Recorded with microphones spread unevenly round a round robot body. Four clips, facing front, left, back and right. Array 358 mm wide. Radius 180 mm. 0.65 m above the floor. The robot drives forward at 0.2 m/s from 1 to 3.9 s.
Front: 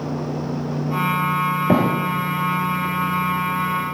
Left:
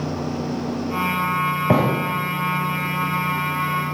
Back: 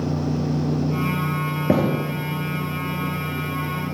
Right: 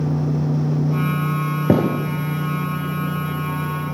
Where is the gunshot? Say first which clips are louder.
Right 2 dB, front 1 dB; 105° right, 2 m.